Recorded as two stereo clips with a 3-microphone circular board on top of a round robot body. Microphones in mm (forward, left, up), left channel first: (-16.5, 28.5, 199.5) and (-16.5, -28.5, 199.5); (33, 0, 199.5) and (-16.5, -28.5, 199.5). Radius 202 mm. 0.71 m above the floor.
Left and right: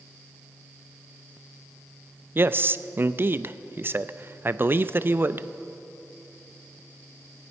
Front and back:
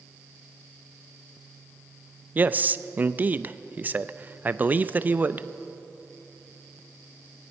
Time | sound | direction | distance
2.4 | a man speaking | 110° right | 0.6 m